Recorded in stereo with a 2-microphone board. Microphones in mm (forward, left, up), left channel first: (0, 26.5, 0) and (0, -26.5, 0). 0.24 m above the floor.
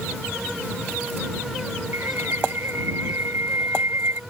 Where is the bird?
55° right (ahead or behind).